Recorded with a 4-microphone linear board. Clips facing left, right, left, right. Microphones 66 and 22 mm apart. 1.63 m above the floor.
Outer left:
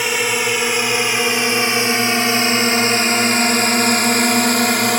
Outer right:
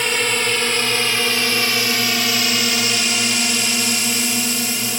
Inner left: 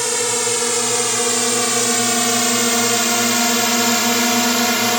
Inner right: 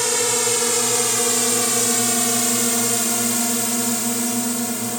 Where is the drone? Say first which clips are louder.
Outer left 1 dB, inner left 1 dB; 5° left (ahead or behind); by 5.0 s 60° left (ahead or behind).